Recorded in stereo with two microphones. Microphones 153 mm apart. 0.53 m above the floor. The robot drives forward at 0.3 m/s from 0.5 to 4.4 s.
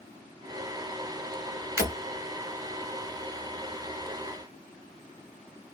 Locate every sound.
1.8 s breaking glass: 20° right (ahead or behind), 1.9 m